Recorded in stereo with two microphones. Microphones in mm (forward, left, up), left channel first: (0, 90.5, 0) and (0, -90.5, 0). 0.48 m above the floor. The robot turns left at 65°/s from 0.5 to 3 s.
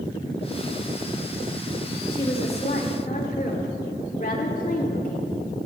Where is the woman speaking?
145° left, 1.3 m; by 5.3 s 85° left, 1.3 m.